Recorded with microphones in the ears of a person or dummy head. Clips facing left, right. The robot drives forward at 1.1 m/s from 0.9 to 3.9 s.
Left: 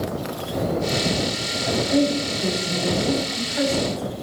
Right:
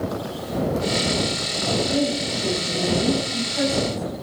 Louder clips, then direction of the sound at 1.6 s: Left 2 dB; 20° left (ahead or behind).